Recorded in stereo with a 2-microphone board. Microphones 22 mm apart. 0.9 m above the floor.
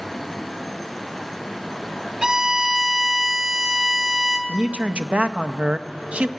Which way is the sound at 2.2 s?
40° right (ahead or behind).